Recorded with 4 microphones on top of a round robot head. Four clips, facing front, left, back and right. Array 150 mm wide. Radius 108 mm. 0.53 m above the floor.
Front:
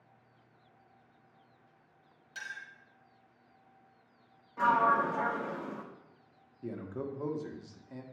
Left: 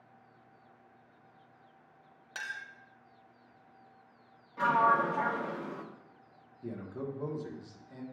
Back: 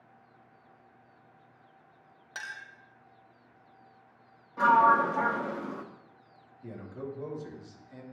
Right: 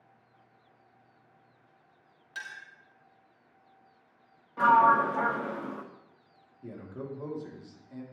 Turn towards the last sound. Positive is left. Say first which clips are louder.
# left 1 dB, front 1 dB
turn(degrees=5)